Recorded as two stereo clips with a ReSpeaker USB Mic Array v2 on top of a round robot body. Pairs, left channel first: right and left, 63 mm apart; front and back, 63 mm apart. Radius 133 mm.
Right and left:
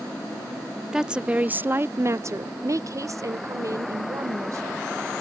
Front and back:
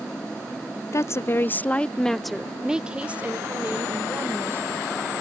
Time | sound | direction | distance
0.9 | a woman speaking | 10° left | ?